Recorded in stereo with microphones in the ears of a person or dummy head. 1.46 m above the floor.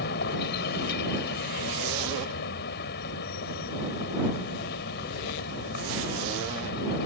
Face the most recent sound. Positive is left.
turn(degrees=55)  # may be behind; listen again after turning